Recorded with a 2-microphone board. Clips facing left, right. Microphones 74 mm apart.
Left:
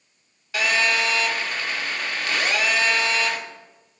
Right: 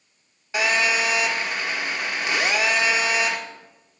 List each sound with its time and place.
0.5 s a phone buzzing: 20° right (ahead or behind), 1.8 m